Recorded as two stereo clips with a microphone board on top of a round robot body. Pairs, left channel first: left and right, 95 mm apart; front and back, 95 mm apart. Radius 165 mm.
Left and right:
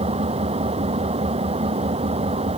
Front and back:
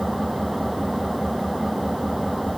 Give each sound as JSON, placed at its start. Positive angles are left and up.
{"t": 0.0, "sound": "an engine running", "azimuth_deg": -90}